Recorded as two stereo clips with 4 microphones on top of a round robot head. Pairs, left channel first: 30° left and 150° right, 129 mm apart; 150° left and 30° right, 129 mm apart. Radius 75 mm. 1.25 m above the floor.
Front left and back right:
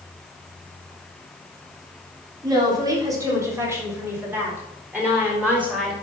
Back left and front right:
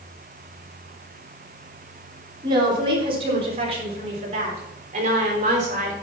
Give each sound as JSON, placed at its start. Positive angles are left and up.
{"t": 2.4, "sound": "a woman speaking", "azimuth_deg": -90, "distance_m": 3.5}